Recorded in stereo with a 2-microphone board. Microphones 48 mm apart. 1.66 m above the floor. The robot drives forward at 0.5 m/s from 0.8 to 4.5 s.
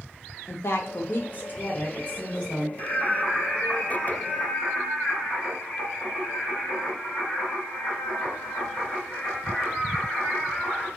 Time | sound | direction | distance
0.5 | a woman speaking | 60° left (ahead or behind) | 0.6 m
2.8 | singing | centre (ahead or behind) | 2.5 m